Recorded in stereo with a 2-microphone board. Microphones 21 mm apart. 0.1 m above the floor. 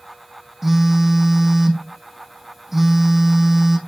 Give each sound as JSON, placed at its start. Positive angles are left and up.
{"t": 0.6, "sound": "a phone buzzing", "side_deg": -15, "distance_m": 1.7}